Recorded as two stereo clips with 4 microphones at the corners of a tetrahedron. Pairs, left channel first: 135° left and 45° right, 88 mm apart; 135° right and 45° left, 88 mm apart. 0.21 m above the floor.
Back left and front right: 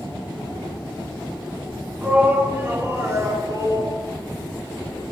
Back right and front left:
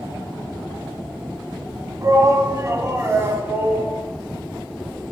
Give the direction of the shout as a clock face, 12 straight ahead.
11 o'clock.